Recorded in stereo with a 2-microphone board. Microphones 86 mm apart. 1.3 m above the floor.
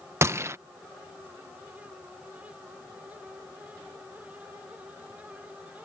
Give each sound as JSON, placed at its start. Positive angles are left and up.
{"t": 0.2, "sound": "a gunshot", "side_deg": -30}